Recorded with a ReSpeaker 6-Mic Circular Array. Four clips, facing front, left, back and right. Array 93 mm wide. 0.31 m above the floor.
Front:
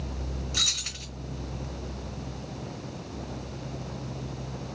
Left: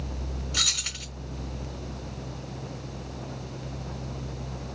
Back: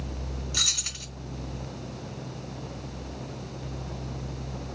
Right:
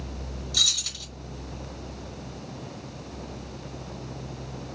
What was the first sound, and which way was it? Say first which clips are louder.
Keys jangling: left 3 dB, even; 85° left.